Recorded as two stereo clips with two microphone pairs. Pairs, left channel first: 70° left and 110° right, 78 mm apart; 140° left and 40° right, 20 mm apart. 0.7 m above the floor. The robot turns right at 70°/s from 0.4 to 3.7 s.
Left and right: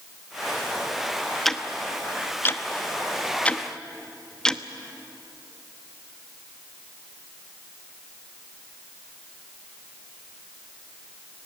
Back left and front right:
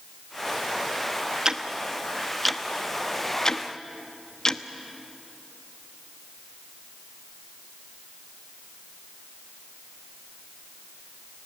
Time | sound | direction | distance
1.4 | ticking | 15° right | 0.8 m